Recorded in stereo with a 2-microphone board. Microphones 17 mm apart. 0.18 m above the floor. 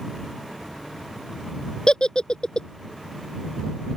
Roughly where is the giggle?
Left.